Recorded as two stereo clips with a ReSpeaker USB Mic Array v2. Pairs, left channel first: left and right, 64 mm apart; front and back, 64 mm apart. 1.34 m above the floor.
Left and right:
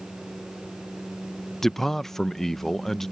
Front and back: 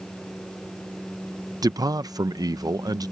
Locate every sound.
1.6 s a man speaking: 175° left